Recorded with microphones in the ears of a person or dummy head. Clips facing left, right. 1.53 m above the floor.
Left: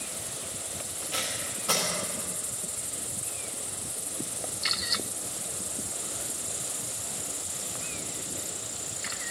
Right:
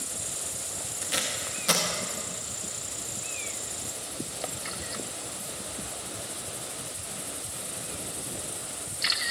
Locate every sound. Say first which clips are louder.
1.0 s tape being pulled: right 2 dB; 25° right (ahead or behind), 1.2 m